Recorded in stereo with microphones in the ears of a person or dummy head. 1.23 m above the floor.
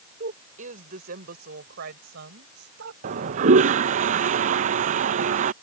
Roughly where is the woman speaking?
Right.